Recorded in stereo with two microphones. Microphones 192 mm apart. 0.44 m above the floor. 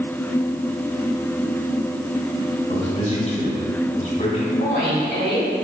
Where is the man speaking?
40° left (ahead or behind), 3 m.